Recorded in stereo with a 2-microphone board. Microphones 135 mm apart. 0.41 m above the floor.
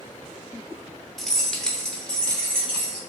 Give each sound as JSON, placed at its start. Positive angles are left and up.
{"t": 1.2, "sound": "keys jangling", "side_deg": 0, "distance_m": 0.5}